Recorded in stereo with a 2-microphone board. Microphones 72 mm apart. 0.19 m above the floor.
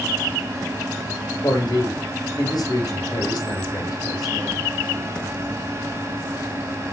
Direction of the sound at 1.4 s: 70° left (ahead or behind).